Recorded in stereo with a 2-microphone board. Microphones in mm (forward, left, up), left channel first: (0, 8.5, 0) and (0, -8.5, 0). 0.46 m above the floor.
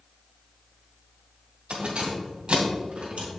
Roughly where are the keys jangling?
Right.